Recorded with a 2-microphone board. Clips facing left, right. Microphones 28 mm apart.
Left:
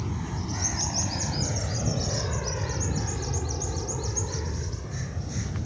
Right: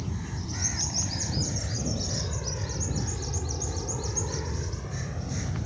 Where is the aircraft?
30° left (ahead or behind); by 5.7 s 15° right (ahead or behind).